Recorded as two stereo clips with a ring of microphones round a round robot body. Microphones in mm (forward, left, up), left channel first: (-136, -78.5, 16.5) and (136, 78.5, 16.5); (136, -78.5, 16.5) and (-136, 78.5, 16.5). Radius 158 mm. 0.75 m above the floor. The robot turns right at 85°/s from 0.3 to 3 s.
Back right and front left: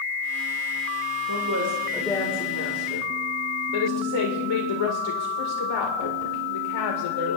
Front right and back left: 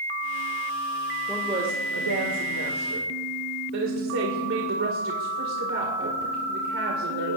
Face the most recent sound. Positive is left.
turn(degrees=-160)